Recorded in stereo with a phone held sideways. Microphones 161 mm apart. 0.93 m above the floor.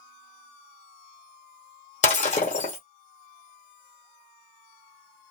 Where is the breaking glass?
50° left (ahead or behind), 1.7 m.